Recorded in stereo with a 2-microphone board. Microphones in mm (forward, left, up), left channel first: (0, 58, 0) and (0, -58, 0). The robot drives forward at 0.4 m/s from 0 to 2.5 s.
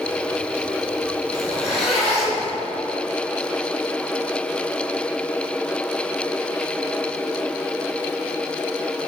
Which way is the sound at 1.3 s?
5° right (ahead or behind).